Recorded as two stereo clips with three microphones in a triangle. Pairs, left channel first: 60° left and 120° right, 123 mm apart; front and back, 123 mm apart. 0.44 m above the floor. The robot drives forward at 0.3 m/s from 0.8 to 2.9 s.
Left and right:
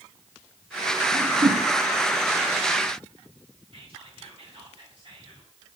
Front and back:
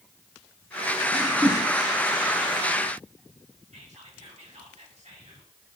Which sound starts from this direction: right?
A whoosh, at 1.1 s.